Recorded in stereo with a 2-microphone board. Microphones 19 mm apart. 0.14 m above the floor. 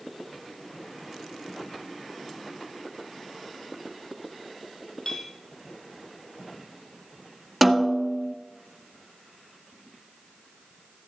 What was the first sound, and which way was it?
A clink, 40° left (ahead or behind).